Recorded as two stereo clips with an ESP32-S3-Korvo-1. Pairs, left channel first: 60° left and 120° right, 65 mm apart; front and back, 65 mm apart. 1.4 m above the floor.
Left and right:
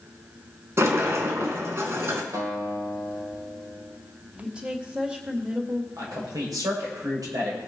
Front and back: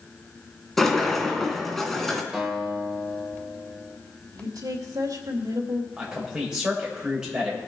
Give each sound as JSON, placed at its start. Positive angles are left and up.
{"t": 0.8, "sound": "a sliding door", "azimuth_deg": -85, "distance_m": 2.0}
{"t": 2.3, "sound": "a guitar", "azimuth_deg": -100, "distance_m": 3.0}
{"t": 4.3, "sound": "a woman speaking", "azimuth_deg": 170, "distance_m": 2.5}
{"t": 6.0, "sound": "a man speaking", "azimuth_deg": -100, "distance_m": 7.0}